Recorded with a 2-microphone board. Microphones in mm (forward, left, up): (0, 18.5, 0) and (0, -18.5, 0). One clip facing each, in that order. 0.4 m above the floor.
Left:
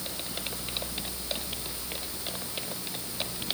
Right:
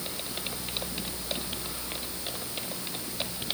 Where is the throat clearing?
No throat clearing in this recording.